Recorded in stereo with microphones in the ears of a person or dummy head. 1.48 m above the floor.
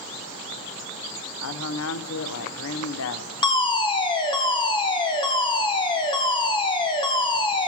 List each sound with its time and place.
1.4 s a man speaking: 85° left, 0.9 m
3.4 s a fire alarm: 25° left (ahead or behind), 1.5 m